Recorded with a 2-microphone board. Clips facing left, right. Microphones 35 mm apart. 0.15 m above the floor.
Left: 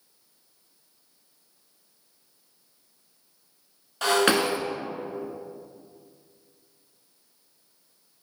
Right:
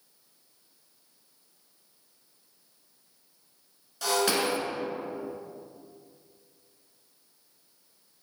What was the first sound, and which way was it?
Breaking glass, 50° left (ahead or behind).